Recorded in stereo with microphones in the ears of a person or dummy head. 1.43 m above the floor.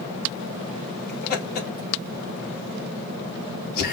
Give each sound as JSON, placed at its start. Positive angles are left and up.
{"t": 1.1, "sound": "laughter", "side_deg": 50, "distance_m": 1.8}